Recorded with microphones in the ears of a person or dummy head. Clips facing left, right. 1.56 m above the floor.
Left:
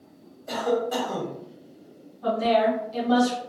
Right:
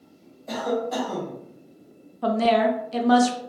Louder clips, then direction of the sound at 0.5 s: Left 1 dB; 5° left (ahead or behind).